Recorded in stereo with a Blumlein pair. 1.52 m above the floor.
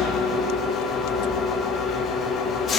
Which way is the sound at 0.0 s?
25° left.